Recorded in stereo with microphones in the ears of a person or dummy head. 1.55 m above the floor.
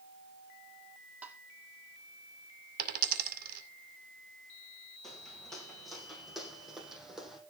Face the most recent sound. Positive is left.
turn(degrees=5)  # may be behind; listen again after turning